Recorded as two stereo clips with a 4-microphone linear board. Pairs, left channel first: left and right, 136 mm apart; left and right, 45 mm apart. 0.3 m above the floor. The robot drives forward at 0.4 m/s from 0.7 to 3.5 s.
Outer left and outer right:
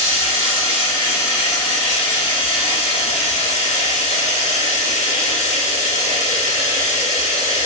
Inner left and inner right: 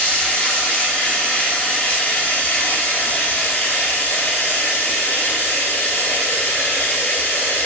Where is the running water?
30° left (ahead or behind), 1.7 m; by 7.7 s 65° left (ahead or behind), 0.9 m.